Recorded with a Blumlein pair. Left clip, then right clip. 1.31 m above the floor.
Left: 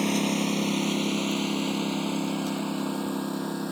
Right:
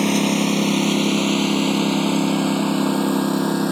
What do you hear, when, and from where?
0.0 s a lawn mower: 70° right; by 3.7 s 60° right